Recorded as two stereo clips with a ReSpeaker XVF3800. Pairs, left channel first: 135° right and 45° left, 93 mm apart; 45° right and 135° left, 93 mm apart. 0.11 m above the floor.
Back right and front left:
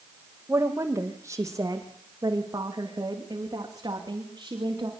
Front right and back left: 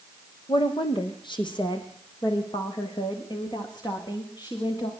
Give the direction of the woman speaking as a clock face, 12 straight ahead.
1 o'clock.